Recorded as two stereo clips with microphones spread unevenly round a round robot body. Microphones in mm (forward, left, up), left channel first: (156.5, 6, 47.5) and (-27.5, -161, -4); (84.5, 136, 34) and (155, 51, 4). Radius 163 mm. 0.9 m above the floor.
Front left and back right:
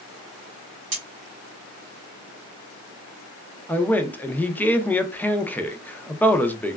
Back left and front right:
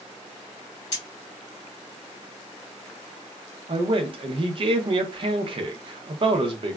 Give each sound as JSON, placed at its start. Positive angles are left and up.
{"t": 0.9, "sound": "cutlery clinking", "azimuth_deg": 170, "distance_m": 1.3}
{"t": 3.7, "sound": "a man speaking", "azimuth_deg": -50, "distance_m": 0.6}